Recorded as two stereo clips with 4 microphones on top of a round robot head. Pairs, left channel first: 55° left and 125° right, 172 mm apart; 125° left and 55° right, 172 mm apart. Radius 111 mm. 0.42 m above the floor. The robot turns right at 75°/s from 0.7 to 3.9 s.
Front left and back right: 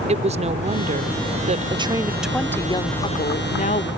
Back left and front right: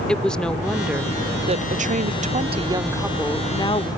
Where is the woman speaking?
155° right; by 3.9 s 85° left.